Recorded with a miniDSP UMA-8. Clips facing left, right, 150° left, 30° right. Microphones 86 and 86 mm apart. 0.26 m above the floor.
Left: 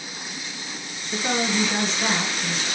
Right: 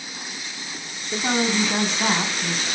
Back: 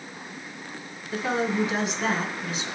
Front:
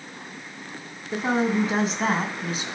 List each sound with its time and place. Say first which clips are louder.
1.1 s a woman speaking: right 2 dB, front 3 dB; 80° right, 2.5 m; by 2.6 s 50° right, 2 m